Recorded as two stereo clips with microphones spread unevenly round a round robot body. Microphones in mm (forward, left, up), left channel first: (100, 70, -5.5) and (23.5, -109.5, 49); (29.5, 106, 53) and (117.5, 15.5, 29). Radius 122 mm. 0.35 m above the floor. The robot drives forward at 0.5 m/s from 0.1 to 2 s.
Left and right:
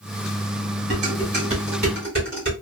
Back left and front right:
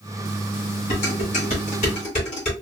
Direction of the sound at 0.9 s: Straight behind.